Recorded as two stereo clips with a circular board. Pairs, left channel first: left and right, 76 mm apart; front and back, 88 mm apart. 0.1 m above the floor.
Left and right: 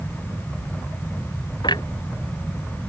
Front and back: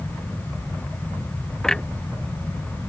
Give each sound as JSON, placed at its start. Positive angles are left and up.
{"t": 1.6, "sound": "a clunk", "azimuth_deg": 85}